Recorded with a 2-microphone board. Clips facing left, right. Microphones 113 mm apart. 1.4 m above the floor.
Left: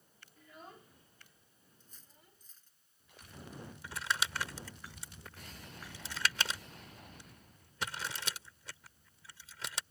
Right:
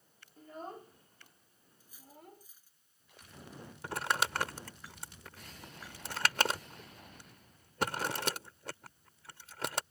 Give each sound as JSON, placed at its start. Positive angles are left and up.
{"t": 0.4, "sound": "a child speaking", "side_deg": -40}
{"t": 1.8, "sound": "cutlery clinking", "side_deg": -10}
{"t": 3.8, "sound": "crumpling", "side_deg": -60}